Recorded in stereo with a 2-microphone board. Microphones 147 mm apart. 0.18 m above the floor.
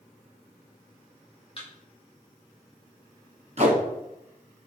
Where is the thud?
40° left (ahead or behind), 2.5 m.